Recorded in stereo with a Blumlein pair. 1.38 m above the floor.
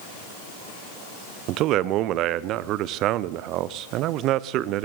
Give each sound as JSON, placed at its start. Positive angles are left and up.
{"t": 1.5, "sound": "a man speaking", "azimuth_deg": -35, "distance_m": 0.6}